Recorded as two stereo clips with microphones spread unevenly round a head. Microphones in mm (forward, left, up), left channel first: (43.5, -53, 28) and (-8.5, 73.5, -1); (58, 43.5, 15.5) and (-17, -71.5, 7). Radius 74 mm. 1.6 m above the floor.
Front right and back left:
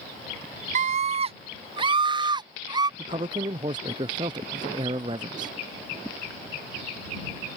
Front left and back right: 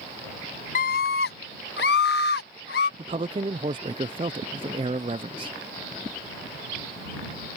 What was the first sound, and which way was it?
A scream, 95° left.